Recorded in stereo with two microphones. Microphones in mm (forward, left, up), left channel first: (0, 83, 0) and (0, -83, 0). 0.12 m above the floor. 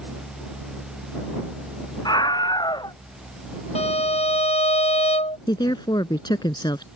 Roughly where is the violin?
Left.